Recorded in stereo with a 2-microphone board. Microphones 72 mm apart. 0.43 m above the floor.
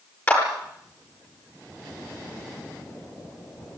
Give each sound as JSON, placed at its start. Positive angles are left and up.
{"t": 0.3, "sound": "a clap", "side_deg": 25, "distance_m": 8.5}